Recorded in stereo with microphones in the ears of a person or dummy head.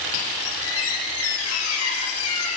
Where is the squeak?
80° left, 7.5 m.